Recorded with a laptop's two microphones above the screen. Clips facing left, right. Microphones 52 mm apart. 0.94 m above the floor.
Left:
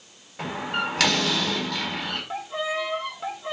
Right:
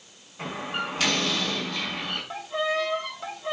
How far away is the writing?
No writing in this recording.